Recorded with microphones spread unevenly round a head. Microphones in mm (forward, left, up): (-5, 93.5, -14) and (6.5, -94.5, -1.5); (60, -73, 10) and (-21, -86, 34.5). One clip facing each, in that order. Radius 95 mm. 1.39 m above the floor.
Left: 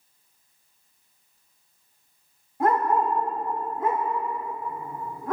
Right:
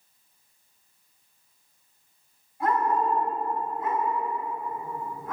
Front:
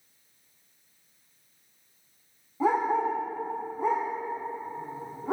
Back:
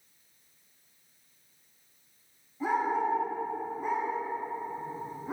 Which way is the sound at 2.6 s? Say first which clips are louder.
Left 3 dB, front 3 dB; 55° left.